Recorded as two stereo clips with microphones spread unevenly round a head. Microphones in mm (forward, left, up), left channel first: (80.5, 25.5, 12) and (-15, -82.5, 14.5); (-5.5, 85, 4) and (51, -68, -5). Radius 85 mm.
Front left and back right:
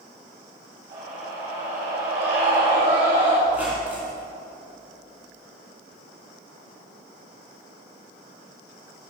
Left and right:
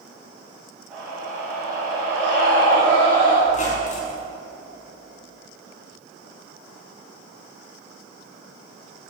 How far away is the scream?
About 4 m.